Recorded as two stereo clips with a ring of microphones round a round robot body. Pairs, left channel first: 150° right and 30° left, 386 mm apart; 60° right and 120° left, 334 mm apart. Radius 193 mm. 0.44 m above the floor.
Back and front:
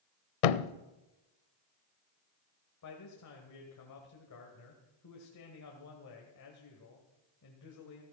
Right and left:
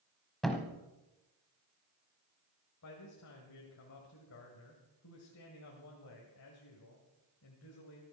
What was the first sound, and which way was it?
A thud, 150° right.